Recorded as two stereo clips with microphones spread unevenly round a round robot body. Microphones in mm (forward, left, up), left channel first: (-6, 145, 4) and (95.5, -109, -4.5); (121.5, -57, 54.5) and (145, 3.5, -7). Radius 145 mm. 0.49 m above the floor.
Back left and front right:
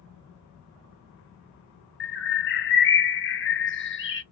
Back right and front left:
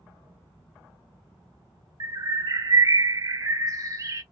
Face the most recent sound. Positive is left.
turn(degrees=60)